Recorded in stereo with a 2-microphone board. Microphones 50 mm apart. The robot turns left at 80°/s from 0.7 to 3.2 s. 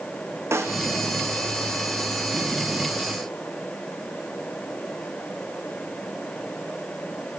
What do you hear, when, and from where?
0.5 s a snare drum: 70° right (ahead or behind), 1.9 m; by 0.8 s 80° right, 1.9 m